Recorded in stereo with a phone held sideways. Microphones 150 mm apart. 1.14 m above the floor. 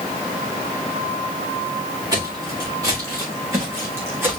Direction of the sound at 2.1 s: 25° right (ahead or behind).